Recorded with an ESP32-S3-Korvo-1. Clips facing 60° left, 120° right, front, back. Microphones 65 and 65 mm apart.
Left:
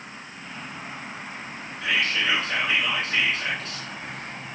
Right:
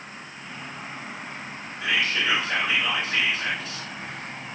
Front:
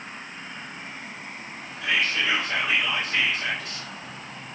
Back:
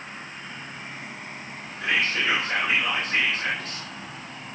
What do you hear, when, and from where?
1.8 s whispering: 175° left, 1.3 m